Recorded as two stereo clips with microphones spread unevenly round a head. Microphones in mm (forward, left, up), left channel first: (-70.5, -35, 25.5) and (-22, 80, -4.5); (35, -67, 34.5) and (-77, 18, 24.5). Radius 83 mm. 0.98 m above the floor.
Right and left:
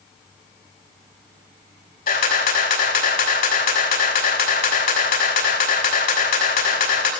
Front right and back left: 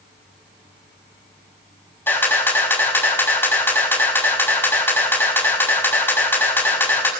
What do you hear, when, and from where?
2.1 s a camera shutter: 110° right, 6.5 m